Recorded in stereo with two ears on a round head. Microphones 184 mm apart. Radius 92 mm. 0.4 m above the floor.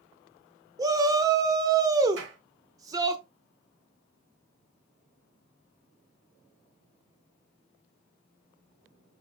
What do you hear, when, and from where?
0.8 s a shout: 20° right (ahead or behind), 0.9 m
2.2 s a clap: 70° right (ahead or behind), 4.5 m